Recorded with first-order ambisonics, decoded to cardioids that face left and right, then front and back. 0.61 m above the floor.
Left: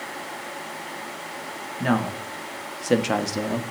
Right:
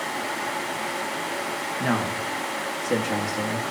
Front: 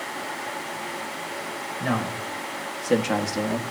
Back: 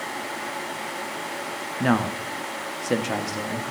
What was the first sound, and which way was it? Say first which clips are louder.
A man speaking: left 2 dB, back 4 dB; straight behind.